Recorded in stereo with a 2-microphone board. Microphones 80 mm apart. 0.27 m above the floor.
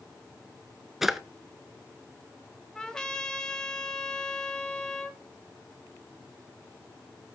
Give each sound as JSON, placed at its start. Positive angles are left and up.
{"t": 1.0, "sound": "a drawer", "side_deg": -5, "distance_m": 0.8}
{"t": 2.8, "sound": "a trumpet", "side_deg": 10, "distance_m": 1.6}